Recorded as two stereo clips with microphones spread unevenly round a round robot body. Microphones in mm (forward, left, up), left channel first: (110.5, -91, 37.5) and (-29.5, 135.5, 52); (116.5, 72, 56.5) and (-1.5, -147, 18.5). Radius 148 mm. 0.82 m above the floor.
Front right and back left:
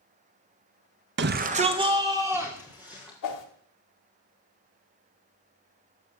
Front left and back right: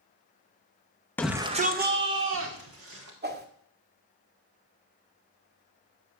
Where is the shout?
150° left, 0.8 m; by 3.1 s 150° right, 3 m.